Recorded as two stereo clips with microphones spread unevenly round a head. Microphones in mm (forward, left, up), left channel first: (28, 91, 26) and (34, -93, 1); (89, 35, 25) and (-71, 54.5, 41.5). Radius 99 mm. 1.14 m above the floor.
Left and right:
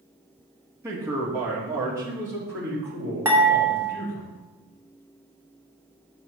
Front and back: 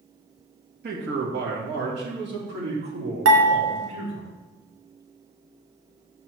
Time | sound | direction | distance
0.8 | a man speaking | 160° right | 1.2 m
3.2 | dishes clattering | 170° right | 1.0 m